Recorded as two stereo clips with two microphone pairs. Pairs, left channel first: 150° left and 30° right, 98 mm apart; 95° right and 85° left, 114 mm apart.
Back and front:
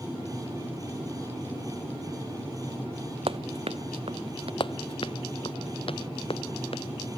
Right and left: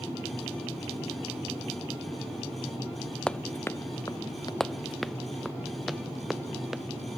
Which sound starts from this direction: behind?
Running footsteps, at 4.6 s.